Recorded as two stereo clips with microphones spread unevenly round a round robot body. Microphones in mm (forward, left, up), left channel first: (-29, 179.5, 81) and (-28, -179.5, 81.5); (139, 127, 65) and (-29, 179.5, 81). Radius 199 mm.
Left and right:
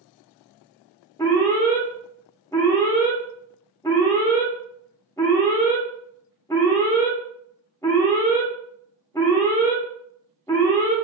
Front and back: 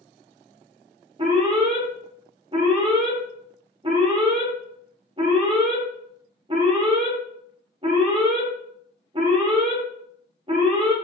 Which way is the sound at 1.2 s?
160° left.